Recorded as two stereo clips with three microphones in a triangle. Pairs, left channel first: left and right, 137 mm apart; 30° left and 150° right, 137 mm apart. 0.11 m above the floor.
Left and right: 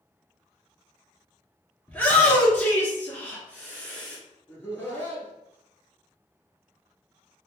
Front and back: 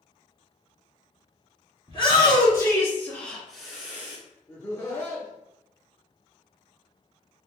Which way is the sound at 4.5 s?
45° left.